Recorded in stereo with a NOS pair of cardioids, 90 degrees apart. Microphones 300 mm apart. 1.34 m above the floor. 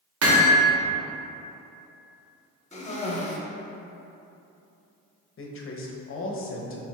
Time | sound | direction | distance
0.2 | hammering | 55° right | 1.3 m
2.7 | a cough | 25° left | 1.2 m
5.4 | a man speaking | 45° left | 0.9 m